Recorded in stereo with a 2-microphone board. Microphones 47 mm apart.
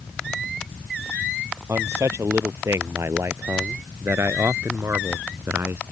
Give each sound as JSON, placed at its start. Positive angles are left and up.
{"t": 1.7, "sound": "a man speaking", "side_deg": -75}